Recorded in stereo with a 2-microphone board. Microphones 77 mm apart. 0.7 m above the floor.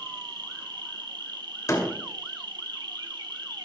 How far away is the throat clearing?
No throat clearing in this recording.